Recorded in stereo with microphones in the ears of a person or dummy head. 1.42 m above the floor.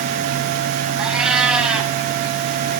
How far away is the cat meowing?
About 2.5 m.